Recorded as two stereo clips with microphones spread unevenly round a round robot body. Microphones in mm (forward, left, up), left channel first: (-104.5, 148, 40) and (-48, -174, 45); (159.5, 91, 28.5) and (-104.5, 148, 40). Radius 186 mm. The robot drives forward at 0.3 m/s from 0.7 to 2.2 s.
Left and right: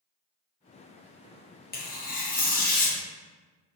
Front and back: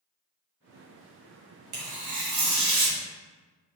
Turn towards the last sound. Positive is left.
turn(degrees=165)